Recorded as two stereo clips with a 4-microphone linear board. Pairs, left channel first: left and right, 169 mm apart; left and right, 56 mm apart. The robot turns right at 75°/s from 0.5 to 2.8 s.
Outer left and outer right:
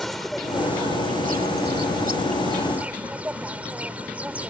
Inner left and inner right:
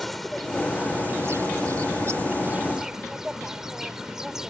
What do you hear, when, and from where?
0.0 s an insect: straight behind; by 4.5 s 10° right